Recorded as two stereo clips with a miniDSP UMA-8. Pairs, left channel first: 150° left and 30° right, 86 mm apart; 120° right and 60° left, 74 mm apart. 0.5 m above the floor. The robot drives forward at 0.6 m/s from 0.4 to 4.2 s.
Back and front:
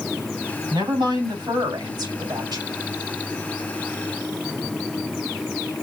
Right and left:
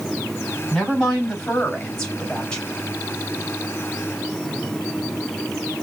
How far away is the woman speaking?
About 3.5 m.